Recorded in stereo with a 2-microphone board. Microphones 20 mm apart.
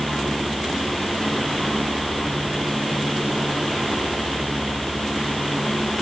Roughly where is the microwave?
No microwave in this recording.